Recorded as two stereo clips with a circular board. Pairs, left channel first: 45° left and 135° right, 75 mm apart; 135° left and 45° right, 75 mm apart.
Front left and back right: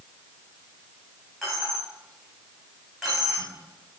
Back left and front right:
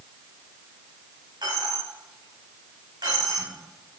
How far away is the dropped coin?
About 4 m.